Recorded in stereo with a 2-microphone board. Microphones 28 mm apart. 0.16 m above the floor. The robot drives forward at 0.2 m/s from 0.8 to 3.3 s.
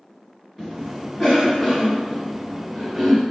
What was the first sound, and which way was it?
A cough, 15° left (ahead or behind).